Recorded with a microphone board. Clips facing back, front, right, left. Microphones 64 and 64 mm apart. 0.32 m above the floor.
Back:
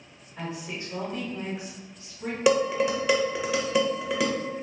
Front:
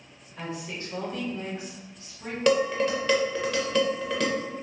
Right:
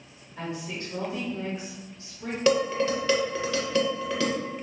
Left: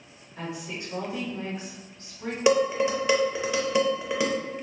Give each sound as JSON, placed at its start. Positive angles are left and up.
{"t": 0.4, "sound": "a woman speaking", "azimuth_deg": 160, "distance_m": 1.2}
{"t": 2.5, "sound": "dishes clattering", "azimuth_deg": 125, "distance_m": 0.5}